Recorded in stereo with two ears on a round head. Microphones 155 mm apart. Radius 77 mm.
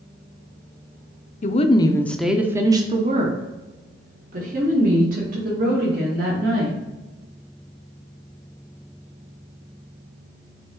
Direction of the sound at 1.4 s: 45° left (ahead or behind).